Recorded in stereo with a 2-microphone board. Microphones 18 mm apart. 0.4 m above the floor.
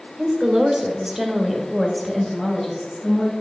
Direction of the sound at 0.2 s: 45° right (ahead or behind).